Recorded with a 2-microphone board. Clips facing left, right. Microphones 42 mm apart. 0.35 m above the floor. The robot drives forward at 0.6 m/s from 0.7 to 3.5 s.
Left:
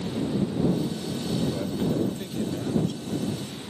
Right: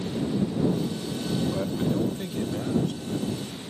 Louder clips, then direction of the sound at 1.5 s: Even; 20° right (ahead or behind).